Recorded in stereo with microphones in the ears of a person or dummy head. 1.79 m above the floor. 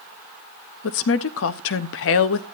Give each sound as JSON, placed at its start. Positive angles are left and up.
{"t": 0.8, "sound": "a woman speaking", "side_deg": 60, "distance_m": 0.8}